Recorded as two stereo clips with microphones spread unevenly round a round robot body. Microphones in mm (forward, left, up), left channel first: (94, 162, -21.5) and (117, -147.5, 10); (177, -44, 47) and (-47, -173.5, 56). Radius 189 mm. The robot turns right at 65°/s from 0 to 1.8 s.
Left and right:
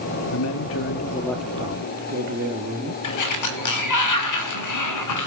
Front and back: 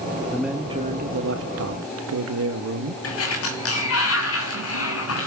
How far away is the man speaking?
About 1.7 m.